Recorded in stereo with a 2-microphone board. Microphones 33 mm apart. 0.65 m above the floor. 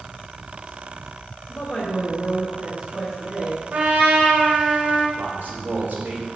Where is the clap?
No clap in this recording.